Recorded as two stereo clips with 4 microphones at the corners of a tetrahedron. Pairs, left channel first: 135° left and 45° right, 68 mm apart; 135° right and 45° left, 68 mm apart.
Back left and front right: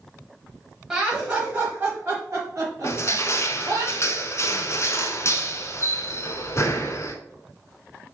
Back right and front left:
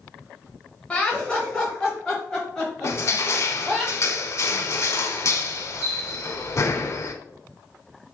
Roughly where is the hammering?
No hammering in this recording.